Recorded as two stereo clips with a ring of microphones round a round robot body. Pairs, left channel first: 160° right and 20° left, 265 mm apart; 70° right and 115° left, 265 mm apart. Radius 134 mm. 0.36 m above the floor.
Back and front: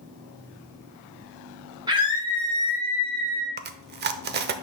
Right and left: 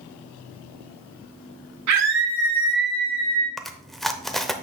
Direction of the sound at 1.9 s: 95° left.